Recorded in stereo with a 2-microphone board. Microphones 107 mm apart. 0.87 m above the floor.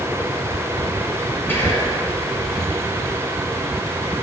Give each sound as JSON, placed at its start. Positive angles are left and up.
{"t": 1.5, "sound": "whispering", "side_deg": 20, "distance_m": 3.5}